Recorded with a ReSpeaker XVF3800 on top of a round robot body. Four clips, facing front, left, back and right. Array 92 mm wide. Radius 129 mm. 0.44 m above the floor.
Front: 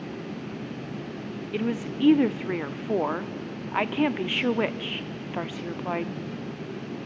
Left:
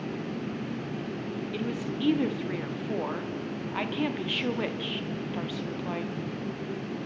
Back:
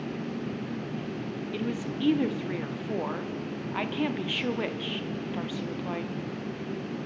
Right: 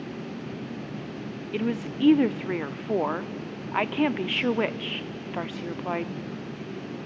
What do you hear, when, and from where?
1.5 s a woman speaking: 50° right, 0.9 m